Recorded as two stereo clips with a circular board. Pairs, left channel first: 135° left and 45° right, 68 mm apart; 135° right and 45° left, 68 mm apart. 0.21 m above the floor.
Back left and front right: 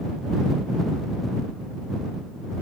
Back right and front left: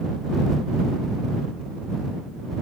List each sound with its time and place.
Only background noise.